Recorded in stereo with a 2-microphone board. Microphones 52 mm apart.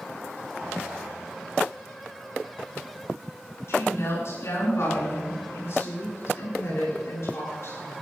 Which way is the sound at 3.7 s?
60° left (ahead or behind).